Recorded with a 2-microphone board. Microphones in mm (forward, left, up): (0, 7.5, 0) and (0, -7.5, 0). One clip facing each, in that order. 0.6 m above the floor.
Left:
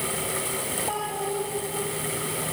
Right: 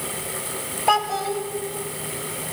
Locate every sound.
0.9 s a child speaking: 70° right (ahead or behind), 3 m